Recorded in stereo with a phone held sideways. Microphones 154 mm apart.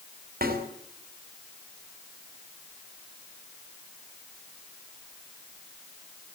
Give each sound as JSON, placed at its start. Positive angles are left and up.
{"t": 0.4, "sound": "a snare drum", "side_deg": -80, "distance_m": 5.0}